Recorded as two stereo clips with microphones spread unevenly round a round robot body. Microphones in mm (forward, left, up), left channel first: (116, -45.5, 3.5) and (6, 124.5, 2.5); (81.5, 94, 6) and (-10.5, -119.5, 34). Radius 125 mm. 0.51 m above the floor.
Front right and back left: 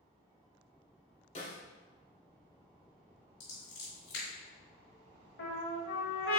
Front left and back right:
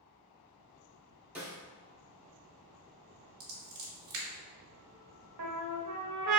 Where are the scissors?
110° right, 1.7 m.